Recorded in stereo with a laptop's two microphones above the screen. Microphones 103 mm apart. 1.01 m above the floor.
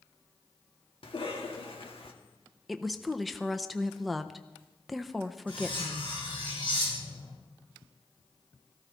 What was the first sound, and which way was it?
A cough, 70° left (ahead or behind).